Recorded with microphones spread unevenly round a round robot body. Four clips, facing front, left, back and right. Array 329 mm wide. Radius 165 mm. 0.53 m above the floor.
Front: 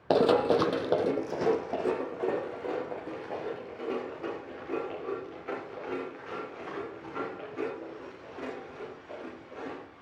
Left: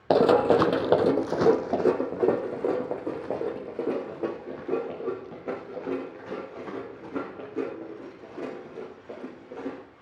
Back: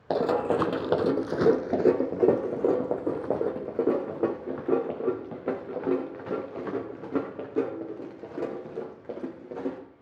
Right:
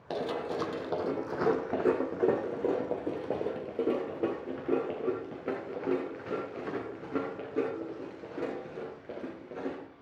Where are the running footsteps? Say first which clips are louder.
Left 14 dB, front 2 dB; 80° left, 0.7 m; by 9.8 s 175° right, 5 m.